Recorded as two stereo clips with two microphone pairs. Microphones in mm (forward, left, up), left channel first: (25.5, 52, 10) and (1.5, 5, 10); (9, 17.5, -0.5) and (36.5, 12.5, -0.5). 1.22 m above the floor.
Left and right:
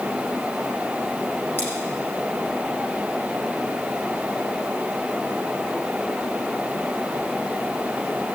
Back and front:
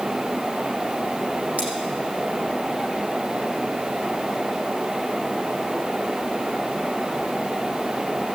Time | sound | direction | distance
1.6 | scissors | 15° left | 7.5 m